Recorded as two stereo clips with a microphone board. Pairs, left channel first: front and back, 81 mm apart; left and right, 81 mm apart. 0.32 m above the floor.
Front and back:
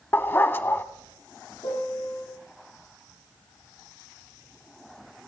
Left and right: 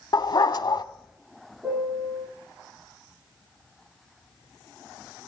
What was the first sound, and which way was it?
A dog barking, 60° left.